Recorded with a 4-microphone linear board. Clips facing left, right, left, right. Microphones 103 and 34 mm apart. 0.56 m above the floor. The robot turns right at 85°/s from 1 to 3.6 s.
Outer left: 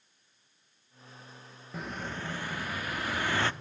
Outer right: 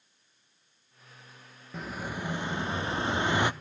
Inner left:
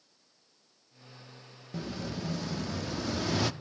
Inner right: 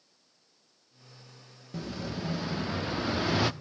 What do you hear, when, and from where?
1.7 s an explosion: 5° left (ahead or behind), 0.8 m; by 3.5 s 15° right (ahead or behind), 0.8 m